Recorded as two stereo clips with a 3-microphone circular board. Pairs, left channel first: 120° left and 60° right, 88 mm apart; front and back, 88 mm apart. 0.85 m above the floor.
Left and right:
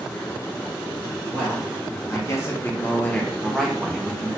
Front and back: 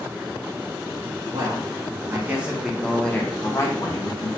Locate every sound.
1.3 s a man speaking: 155° left, 1.0 m; by 4.3 s 25° left, 1.1 m